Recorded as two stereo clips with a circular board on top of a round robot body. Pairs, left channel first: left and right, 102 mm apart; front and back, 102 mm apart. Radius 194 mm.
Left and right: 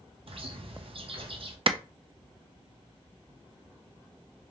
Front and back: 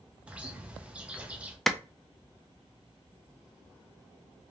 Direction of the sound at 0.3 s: 100° right.